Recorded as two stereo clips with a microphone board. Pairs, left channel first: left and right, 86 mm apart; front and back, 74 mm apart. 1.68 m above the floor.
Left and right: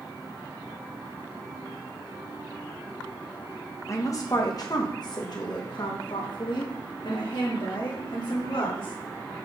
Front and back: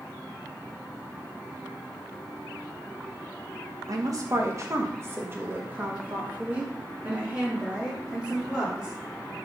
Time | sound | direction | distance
3.9 | a woman speaking | 140° left | 1.8 m